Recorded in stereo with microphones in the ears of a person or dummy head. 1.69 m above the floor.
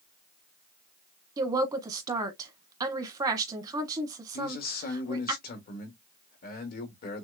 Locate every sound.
1.4 s a woman speaking: 20° right (ahead or behind), 1.2 m
4.3 s a man speaking: 50° left (ahead or behind), 1.7 m